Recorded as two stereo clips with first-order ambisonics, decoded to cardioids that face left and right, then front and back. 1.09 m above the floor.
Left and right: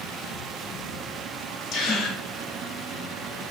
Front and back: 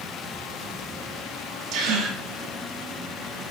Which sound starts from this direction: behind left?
A gasp, at 1.7 s.